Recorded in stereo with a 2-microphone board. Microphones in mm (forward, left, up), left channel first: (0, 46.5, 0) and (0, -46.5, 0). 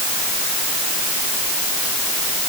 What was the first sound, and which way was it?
Only background noise.